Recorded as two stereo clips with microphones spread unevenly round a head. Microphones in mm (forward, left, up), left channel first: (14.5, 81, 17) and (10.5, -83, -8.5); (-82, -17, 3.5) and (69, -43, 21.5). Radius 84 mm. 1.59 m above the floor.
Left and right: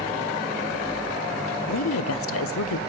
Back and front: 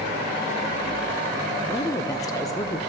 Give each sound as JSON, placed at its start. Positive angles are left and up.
{"t": 1.7, "sound": "a woman speaking", "azimuth_deg": 100, "distance_m": 0.6}